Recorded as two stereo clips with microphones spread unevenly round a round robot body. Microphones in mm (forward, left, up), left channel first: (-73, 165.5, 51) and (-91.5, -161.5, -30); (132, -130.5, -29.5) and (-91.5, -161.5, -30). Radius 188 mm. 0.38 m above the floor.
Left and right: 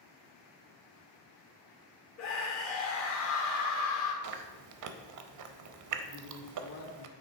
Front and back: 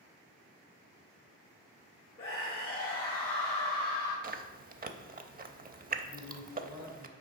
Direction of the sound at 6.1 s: 100° left.